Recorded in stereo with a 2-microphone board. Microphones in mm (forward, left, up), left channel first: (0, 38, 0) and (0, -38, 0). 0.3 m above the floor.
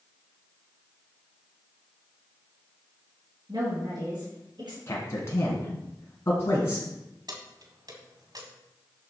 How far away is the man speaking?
About 2.5 m.